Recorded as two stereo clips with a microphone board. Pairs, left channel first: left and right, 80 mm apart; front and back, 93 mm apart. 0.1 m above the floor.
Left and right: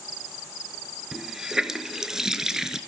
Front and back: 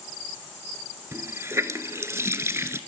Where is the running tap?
165° right, 1.0 m.